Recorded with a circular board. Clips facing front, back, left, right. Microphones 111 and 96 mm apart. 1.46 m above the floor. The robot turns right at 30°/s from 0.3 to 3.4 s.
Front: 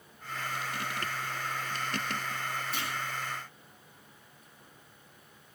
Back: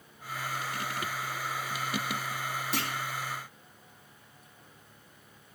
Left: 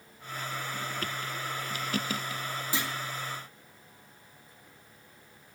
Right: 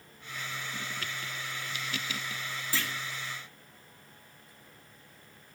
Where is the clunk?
160° left, 2 m; by 2.9 s 165° left, 2 m.